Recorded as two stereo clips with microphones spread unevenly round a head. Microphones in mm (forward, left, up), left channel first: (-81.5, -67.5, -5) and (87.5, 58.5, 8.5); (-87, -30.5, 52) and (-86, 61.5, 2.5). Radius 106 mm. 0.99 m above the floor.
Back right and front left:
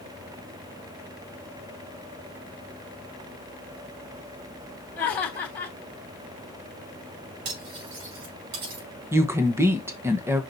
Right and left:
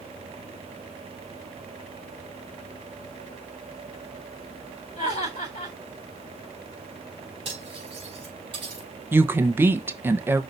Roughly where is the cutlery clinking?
Ahead left.